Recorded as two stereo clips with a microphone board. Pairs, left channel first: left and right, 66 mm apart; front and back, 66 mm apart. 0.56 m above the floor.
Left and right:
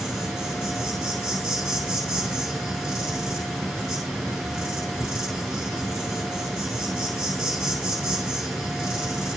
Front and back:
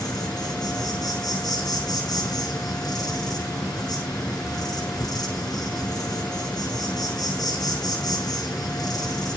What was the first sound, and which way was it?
An insect, 5° right.